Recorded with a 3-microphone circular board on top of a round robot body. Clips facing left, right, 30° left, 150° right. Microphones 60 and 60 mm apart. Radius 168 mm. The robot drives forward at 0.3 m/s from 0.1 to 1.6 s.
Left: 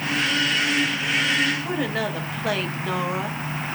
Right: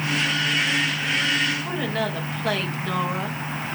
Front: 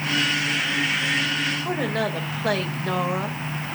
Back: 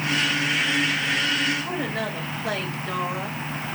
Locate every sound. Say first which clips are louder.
1.6 s a woman speaking: left 1 dB, front 3 dB; 10° left, 2.5 m